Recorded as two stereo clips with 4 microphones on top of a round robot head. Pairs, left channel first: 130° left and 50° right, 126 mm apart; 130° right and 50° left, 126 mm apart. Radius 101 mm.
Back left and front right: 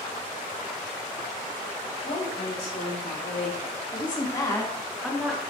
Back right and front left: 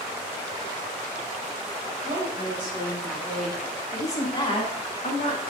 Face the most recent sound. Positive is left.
turn(degrees=-135)